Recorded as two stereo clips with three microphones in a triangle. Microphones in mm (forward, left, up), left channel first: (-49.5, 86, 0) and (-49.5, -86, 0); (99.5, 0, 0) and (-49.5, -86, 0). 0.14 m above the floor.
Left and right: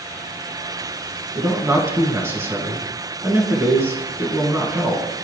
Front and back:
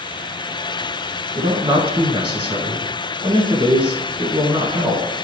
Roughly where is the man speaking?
Behind right.